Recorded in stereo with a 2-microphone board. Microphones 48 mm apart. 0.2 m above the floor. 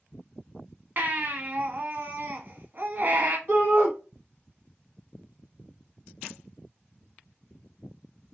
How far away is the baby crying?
About 0.7 m.